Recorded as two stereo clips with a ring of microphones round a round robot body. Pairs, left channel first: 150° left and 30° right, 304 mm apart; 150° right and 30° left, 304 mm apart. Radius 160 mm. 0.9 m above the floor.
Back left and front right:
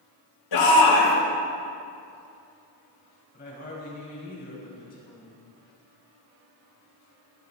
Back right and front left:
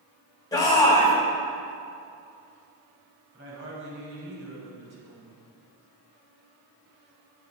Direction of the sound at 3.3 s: 85° left.